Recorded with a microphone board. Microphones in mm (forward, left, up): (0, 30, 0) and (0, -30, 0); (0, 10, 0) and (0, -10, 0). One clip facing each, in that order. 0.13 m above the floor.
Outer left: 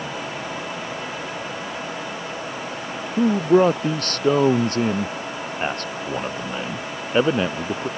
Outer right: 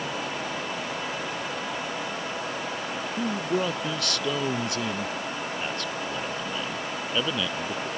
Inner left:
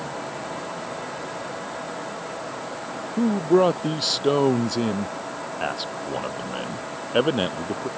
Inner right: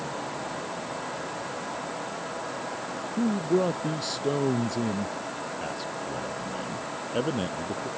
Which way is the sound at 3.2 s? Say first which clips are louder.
Outer left 12 dB, inner left 6 dB; 40° left (ahead or behind).